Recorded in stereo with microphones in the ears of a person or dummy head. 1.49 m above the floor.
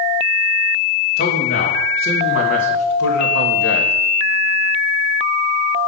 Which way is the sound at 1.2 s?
50° left (ahead or behind).